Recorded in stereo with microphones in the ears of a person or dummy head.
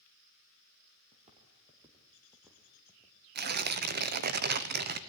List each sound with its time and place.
1.1 s footsteps: 35° right (ahead or behind), 3 m; by 3.2 s 10° left (ahead or behind), 4 m
3.4 s tearing paper: 45° right (ahead or behind), 1.1 m